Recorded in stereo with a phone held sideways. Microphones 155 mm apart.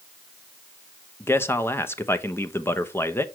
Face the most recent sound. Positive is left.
turn(degrees=15)  # may be behind; listen again after turning